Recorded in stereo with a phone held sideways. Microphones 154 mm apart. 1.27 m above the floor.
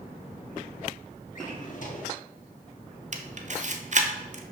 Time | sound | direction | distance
1.4 | a drawer | 60° left (ahead or behind) | 1.4 m
3.1 | a camera shutter | 50° right (ahead or behind) | 0.8 m